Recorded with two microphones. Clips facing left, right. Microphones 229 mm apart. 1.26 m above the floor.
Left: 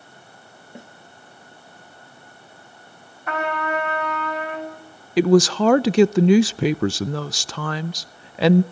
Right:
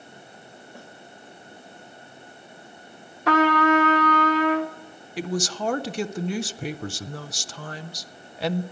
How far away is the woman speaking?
About 0.6 m.